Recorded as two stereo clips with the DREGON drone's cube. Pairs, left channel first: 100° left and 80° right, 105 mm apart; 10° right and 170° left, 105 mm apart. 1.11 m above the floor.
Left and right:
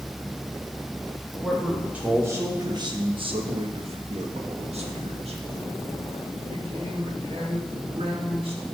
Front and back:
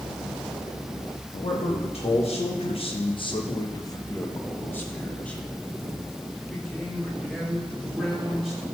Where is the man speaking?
10° left, 1.3 m; by 8.6 s 105° right, 3.5 m.